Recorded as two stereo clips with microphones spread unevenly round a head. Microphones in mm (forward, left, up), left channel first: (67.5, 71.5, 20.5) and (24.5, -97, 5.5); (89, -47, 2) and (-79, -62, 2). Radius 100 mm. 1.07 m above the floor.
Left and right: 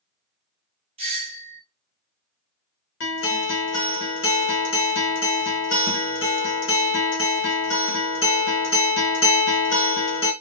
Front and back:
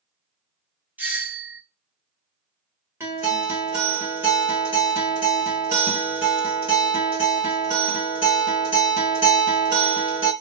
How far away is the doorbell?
About 0.7 m.